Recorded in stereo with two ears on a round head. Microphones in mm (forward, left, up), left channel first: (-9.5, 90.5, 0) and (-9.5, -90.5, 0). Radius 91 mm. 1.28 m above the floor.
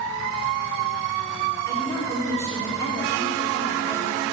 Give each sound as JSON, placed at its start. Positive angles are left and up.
{"t": 1.6, "sound": "a woman speaking", "side_deg": 15, "distance_m": 3.0}